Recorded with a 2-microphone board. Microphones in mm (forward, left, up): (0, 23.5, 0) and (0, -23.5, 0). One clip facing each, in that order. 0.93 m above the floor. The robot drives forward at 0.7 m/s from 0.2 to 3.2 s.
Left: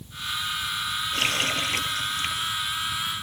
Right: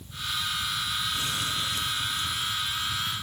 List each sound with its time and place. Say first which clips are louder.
1.1 s a running tap: left 5 dB; 65° left (ahead or behind); by 2.5 s 60° left (ahead or behind)